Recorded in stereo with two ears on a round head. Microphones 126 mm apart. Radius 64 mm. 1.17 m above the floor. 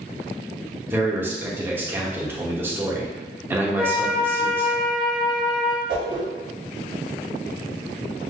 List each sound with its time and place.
0.9 s a man speaking: 15° right (ahead or behind), 1.0 m
3.8 s a flute: 5° left (ahead or behind), 0.6 m
5.9 s a whoosh: 80° right, 2.0 m